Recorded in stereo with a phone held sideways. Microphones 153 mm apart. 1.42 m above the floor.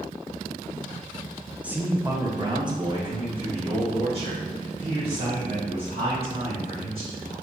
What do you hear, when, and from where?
1.6 s a man speaking: 10° right (ahead or behind), 0.6 m; by 7.3 s 45° right (ahead or behind), 3.5 m